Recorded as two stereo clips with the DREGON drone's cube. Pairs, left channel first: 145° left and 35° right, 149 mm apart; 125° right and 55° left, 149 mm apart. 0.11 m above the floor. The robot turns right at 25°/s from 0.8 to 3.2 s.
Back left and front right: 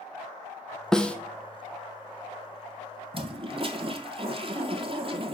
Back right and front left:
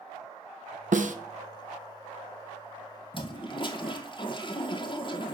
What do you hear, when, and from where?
0.9 s a snare drum: 60° left, 0.5 m; by 1.1 s 65° left, 0.5 m
3.1 s a toilet flushing: 80° right, 0.6 m; by 5.3 s 75° right, 0.6 m